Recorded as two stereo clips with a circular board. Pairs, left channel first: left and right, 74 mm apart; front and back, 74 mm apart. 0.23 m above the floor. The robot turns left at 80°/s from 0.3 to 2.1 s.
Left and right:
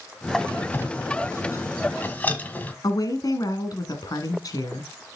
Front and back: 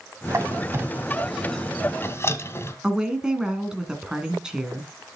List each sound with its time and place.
0.3 s a squeak: straight behind, 1.2 m; by 2.7 s 35° left, 1.2 m
2.8 s a woman speaking: 100° left, 2 m